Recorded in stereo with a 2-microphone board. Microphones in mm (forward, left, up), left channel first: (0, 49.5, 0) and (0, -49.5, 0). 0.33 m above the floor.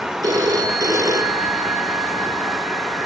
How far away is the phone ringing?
About 4 m.